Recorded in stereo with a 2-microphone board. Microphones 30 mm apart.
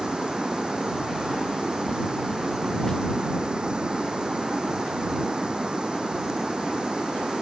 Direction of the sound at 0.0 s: 30° right (ahead or behind).